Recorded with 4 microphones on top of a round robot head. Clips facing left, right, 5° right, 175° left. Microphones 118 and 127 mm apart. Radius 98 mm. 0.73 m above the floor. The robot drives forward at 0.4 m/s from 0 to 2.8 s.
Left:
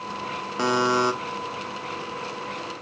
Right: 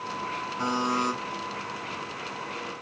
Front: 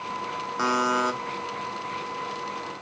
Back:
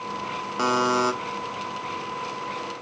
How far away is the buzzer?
About 0.7 m.